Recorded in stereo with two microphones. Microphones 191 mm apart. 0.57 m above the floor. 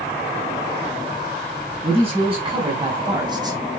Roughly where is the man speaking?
Right.